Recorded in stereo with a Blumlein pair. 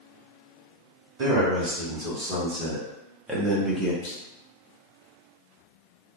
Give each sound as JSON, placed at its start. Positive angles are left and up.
{"t": 1.2, "sound": "a man speaking", "azimuth_deg": -35, "distance_m": 1.8}
{"t": 4.0, "sound": "a clunk", "azimuth_deg": 40, "distance_m": 1.0}